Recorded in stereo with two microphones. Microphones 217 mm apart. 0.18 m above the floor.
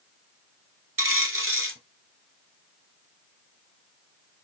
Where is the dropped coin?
70° right (ahead or behind), 1.0 m.